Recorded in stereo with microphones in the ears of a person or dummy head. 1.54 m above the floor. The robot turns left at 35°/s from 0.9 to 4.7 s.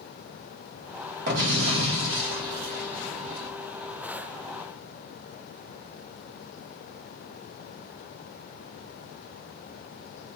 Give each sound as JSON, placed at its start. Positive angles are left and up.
{"t": 1.3, "sound": "an explosion", "azimuth_deg": -60, "distance_m": 1.6}